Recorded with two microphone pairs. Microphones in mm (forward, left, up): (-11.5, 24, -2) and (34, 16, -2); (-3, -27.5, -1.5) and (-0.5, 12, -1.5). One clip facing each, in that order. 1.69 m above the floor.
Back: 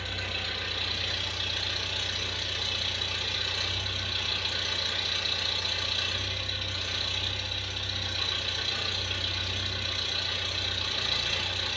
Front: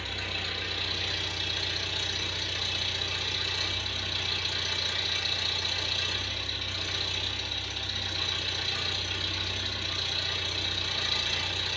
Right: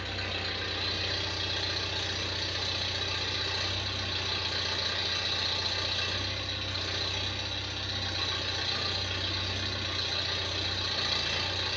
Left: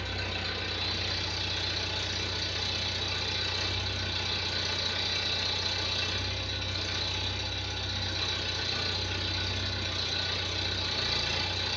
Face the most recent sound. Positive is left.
turn(degrees=-105)